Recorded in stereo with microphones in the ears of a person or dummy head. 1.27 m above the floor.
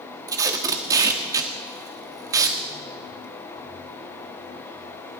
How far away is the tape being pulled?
About 1.2 m.